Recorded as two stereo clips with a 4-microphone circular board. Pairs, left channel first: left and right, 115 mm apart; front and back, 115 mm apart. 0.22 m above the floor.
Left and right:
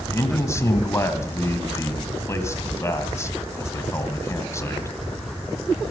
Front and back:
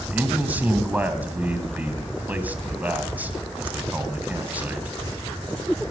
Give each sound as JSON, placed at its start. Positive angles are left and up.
{"t": 0.1, "sound": "a man speaking", "azimuth_deg": 120, "distance_m": 1.3}